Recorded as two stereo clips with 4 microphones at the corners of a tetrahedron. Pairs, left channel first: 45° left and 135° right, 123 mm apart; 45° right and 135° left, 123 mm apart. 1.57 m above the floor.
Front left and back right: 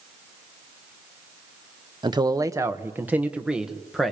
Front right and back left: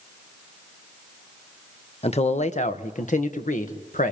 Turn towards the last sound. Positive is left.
turn(degrees=-45)